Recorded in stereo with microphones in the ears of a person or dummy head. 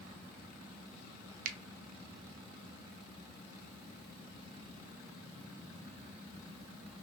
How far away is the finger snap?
About 0.5 m.